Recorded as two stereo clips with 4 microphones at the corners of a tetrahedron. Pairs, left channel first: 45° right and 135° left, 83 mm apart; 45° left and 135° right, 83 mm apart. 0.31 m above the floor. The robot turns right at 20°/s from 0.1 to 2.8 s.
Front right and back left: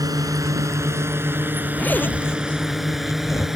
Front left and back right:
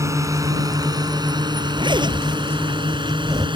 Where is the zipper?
115° right; by 3.5 s 95° right.